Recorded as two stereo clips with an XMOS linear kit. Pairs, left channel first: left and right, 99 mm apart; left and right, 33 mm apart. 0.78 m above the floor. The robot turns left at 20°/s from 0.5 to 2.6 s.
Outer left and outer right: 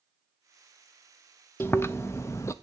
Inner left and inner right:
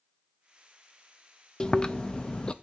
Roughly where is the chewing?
Left.